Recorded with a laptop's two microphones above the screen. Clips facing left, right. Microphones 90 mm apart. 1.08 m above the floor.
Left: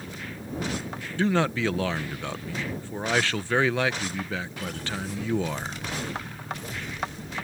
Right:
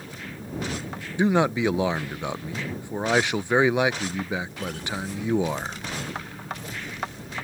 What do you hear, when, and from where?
1.2 s a man speaking: 20° right (ahead or behind)